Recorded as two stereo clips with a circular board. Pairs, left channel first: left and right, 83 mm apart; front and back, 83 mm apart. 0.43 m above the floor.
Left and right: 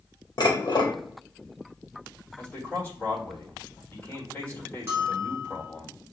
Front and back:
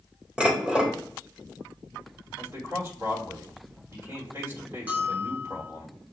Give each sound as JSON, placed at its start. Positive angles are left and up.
{"t": 0.4, "sound": "dishes clattering", "azimuth_deg": 105, "distance_m": 1.0}
{"t": 2.4, "sound": "a man speaking", "azimuth_deg": 145, "distance_m": 1.7}
{"t": 4.9, "sound": "a bell", "azimuth_deg": -125, "distance_m": 1.4}